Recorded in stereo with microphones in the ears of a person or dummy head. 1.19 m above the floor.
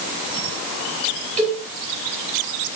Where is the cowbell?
40° right (ahead or behind), 2.5 m.